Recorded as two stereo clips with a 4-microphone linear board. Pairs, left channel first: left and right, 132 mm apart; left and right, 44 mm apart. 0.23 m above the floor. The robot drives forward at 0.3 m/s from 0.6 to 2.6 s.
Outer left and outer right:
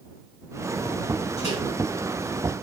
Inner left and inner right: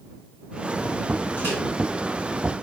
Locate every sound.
1.4 s a microwave: 50° left (ahead or behind), 1.9 m